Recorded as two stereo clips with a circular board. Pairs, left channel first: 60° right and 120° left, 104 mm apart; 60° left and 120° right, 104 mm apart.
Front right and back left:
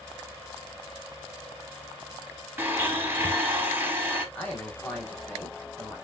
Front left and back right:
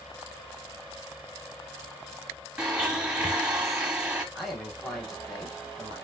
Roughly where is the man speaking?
Ahead right.